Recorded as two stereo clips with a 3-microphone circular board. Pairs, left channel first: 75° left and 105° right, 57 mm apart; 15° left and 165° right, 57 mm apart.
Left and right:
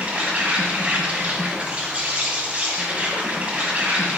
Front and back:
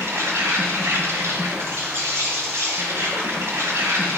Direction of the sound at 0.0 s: 165° right.